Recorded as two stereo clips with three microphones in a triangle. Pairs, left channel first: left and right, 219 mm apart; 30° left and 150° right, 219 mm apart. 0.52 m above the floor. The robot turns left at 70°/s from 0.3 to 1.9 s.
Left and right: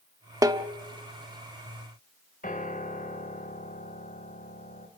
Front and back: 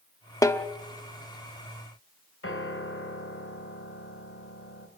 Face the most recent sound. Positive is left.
turn(degrees=40)